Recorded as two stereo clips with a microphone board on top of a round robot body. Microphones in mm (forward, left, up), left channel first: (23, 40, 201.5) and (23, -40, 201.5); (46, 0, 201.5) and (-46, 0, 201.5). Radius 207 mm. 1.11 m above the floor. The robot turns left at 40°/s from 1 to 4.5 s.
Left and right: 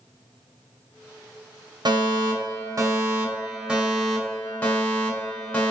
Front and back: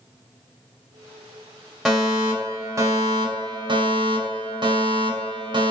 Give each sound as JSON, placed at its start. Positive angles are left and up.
{"t": 1.9, "sound": "a fire alarm", "azimuth_deg": -90, "distance_m": 2.5}